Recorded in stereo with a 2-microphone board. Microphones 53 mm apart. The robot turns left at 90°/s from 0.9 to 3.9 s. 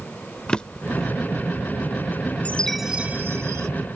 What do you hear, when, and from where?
0.5 s a drawer: 20° left (ahead or behind); by 1.1 s 10° left (ahead or behind)
2.5 s a chime: 30° left; by 3.7 s 85° right